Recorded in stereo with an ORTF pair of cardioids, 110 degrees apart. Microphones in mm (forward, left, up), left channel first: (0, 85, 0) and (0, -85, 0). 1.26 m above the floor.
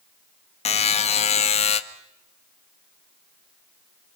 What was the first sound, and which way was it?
A buzzer, 40° left.